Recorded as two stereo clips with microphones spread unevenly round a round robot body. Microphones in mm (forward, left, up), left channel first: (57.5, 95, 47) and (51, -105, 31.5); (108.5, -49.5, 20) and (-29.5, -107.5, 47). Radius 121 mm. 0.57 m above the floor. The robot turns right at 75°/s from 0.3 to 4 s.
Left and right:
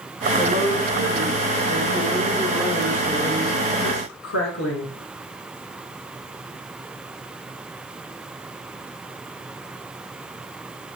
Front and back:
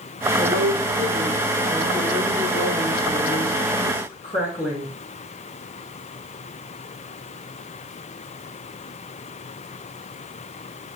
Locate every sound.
0.4 s a woman speaking: straight behind, 5.5 m; by 4.9 s 90° left, 5.5 m